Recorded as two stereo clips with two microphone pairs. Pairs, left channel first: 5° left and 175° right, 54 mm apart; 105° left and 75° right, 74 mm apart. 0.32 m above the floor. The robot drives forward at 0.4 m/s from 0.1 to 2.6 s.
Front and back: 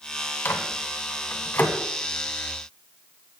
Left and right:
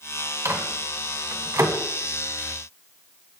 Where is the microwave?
35° right, 2 m; by 1.8 s 50° right, 1.7 m.